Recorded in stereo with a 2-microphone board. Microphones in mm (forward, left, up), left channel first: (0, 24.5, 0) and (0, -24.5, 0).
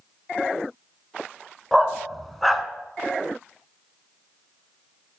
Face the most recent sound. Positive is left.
turn(degrees=5)  # may be behind; listen again after turning